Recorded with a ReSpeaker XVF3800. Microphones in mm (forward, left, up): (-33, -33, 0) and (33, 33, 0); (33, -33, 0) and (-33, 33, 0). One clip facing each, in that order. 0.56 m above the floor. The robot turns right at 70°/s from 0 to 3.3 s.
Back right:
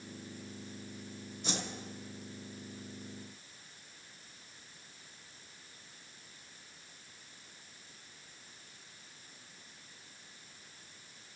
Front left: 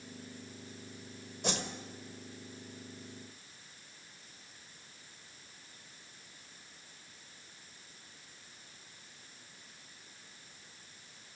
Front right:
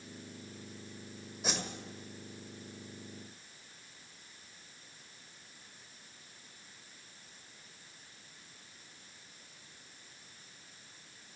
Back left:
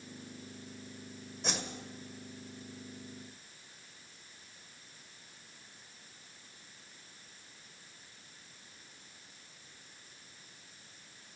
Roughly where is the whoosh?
Ahead left.